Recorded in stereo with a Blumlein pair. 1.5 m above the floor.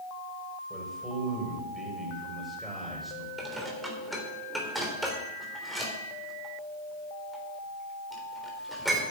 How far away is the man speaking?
About 6.5 m.